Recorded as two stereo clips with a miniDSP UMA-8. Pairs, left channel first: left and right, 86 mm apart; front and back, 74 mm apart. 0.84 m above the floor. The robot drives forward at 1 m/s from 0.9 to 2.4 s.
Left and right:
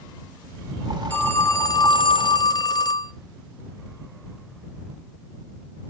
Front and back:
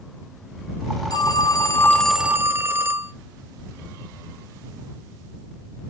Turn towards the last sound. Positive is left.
turn(degrees=125)